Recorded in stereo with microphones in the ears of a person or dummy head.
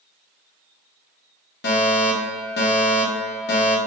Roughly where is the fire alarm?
Left.